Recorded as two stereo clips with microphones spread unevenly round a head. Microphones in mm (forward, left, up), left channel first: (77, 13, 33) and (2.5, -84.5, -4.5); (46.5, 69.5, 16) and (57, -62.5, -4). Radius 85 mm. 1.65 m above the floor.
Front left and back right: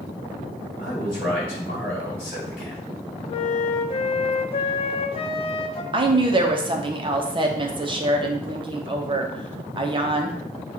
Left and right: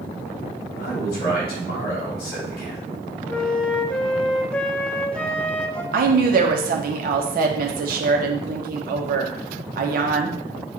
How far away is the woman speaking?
About 0.8 m.